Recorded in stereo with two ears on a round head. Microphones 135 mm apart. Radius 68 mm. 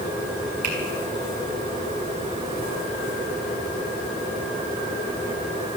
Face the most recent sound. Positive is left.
turn(degrees=-55)  # may be behind; listen again after turning